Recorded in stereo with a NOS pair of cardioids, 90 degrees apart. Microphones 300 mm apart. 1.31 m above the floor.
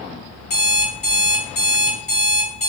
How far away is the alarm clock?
About 1.1 m.